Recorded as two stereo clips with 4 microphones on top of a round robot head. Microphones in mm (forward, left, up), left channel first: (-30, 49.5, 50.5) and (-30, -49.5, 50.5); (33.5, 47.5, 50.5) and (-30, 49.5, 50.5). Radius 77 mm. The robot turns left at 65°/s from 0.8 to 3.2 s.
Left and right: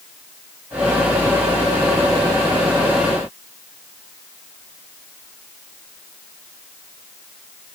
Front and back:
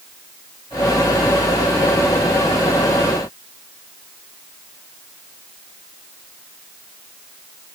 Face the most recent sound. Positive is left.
No sound to turn to.